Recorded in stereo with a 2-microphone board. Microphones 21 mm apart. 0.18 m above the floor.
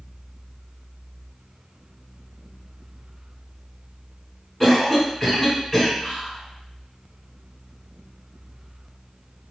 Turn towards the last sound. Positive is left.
turn(degrees=25)  # may be behind; listen again after turning